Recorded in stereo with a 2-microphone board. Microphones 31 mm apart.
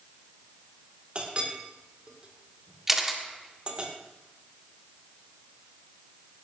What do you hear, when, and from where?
1.1 s a clink: 40° right (ahead or behind), 2 m
2.9 s a camera shutter: 10° right (ahead or behind), 1.6 m